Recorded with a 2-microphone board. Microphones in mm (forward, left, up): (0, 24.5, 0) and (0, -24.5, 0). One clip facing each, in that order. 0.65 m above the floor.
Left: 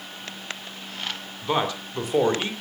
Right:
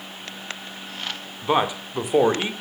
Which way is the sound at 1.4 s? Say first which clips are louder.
Right 3 dB; 15° right (ahead or behind).